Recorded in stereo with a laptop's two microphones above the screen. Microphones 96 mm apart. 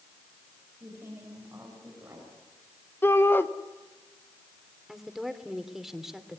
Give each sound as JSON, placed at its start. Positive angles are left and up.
{"t": 0.8, "sound": "a woman speaking", "side_deg": -25, "distance_m": 6.0}
{"t": 3.0, "sound": "a shout", "side_deg": 20, "distance_m": 1.1}
{"t": 4.9, "sound": "a woman speaking", "side_deg": -5, "distance_m": 2.5}